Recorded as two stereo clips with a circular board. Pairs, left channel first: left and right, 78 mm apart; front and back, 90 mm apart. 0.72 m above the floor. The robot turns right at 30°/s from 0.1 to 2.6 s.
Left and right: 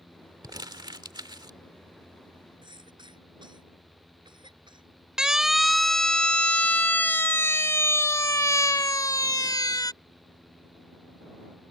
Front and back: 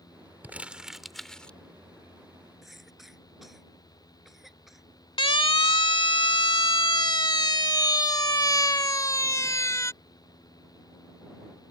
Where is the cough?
90° right.